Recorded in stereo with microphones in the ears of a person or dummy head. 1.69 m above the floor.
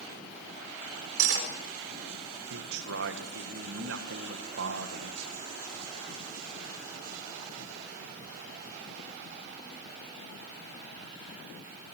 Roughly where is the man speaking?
Right.